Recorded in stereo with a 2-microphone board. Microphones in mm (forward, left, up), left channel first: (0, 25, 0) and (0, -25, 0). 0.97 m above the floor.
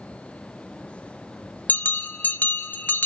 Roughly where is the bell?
Left.